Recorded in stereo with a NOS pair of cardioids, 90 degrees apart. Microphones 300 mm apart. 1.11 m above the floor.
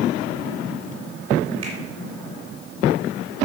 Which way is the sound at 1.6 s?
60° right.